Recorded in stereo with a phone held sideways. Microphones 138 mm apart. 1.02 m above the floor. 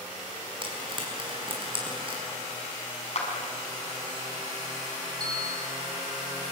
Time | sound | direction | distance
0.6 | frying | 35° right (ahead or behind) | 5.5 m
3.1 | a clap | 50° left (ahead or behind) | 6.5 m
5.2 | a bell | 25° right (ahead or behind) | 8.5 m